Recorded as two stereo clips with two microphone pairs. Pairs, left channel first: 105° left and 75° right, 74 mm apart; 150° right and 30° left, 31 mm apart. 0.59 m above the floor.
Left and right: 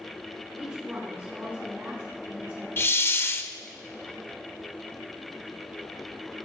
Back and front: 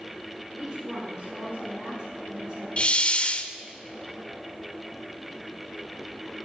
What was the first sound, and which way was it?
A woman speaking, 10° right.